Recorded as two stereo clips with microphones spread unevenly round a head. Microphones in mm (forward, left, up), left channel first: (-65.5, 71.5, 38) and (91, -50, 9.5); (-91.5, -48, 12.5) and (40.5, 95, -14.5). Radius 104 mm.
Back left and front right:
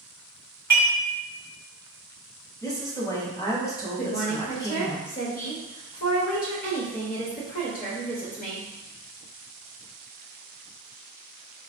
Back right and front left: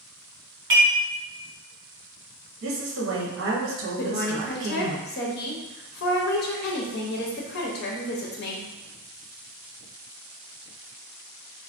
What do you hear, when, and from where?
0.7 s dishes clattering: 70° left, 1.5 m
2.6 s a woman speaking: 70° left, 0.9 m
4.0 s a woman speaking: 165° right, 0.7 m